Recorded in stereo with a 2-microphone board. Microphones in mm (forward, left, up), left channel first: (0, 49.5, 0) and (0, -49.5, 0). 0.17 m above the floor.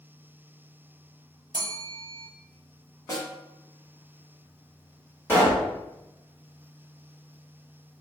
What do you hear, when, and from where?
1.5 s a bell: 50° right (ahead or behind), 0.8 m
3.1 s a snare drum: 35° left (ahead or behind), 1.0 m
5.3 s a pop: 20° left (ahead or behind), 1.8 m